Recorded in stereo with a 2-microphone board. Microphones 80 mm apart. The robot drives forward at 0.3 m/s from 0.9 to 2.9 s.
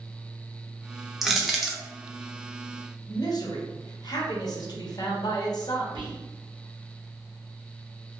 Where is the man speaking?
55° left (ahead or behind), 0.8 m.